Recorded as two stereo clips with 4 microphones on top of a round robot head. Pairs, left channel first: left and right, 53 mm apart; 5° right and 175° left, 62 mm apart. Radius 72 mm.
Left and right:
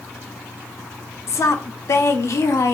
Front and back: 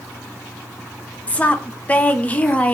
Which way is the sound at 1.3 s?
60° left.